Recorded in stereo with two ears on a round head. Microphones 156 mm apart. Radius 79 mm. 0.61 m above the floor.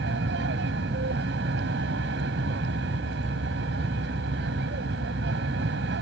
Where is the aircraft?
70° right (ahead or behind).